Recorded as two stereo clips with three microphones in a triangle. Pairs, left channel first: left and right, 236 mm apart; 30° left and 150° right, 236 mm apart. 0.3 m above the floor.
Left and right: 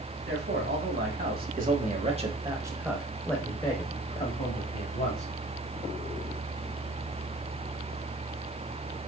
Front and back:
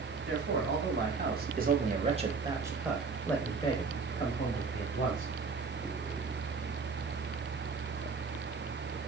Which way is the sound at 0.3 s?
120° right.